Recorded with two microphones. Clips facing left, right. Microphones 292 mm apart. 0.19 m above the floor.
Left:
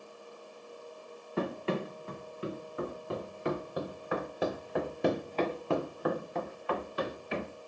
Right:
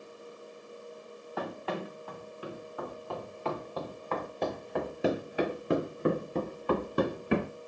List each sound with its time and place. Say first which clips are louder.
1.4 s running footsteps: left 4 dB; 30° left (ahead or behind), 4.5 m; by 7.5 s 70° right (ahead or behind), 1.8 m